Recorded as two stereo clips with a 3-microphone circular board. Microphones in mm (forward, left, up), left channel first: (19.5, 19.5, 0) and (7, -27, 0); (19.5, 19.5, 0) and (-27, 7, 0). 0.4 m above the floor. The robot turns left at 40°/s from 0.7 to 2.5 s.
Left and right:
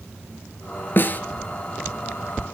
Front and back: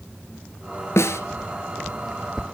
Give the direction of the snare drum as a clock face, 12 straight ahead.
11 o'clock.